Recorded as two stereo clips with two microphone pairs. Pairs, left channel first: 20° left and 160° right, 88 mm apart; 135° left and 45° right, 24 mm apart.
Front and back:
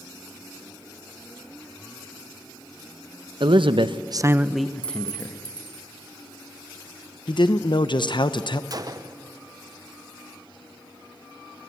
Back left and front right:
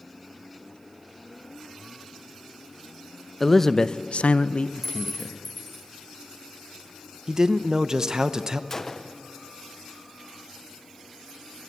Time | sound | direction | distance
3.4 | a man speaking | 140° right | 1.0 m
4.8 | a clink | 140° right | 3 m
7.3 | a man speaking | 15° left | 0.9 m
8.7 | a gunshot | 160° right | 0.8 m